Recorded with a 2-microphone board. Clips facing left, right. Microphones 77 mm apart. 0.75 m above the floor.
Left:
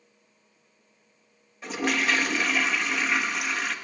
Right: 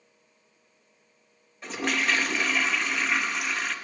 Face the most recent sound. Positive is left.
turn(degrees=0)  # may be behind; listen again after turning